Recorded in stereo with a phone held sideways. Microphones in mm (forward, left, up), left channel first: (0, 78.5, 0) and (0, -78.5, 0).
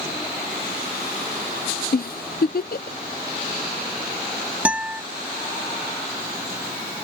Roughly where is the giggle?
Left.